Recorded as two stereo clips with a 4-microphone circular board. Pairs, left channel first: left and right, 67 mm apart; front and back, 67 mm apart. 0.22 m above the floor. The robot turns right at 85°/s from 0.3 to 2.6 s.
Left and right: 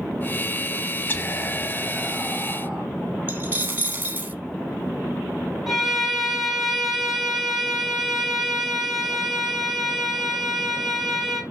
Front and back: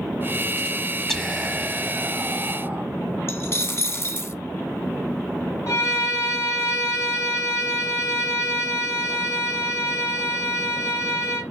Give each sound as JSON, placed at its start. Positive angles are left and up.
{"t": 1.1, "sound": "whispering", "azimuth_deg": 75, "distance_m": 1.4}
{"t": 3.3, "sound": "a dropped coin", "azimuth_deg": -35, "distance_m": 0.8}
{"t": 5.7, "sound": "a violin", "azimuth_deg": -5, "distance_m": 2.0}